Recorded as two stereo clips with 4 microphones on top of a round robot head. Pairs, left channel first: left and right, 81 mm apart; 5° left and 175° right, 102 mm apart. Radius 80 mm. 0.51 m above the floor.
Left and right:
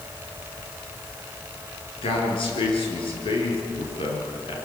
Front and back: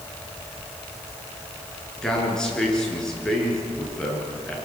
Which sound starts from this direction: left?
A man speaking, at 2.0 s.